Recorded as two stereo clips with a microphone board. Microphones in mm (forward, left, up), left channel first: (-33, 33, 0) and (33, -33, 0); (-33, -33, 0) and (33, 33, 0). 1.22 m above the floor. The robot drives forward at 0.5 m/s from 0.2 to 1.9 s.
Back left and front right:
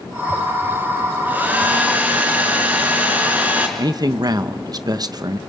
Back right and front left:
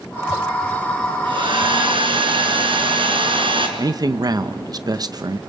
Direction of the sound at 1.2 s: 25° left.